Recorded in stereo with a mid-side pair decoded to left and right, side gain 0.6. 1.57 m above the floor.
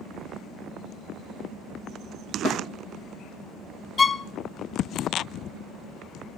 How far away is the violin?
About 0.6 m.